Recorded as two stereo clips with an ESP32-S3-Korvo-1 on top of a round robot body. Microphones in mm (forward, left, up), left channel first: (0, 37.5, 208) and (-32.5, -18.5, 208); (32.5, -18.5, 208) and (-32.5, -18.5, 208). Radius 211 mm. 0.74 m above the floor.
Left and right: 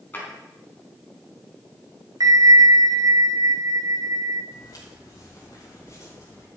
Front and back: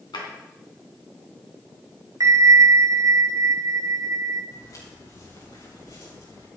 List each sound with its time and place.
0.1 s a drawer: 5° right, 3 m
2.2 s a bell: 145° right, 1.2 m
4.5 s footsteps: 35° left, 8.5 m; by 6.5 s 20° left, 7.5 m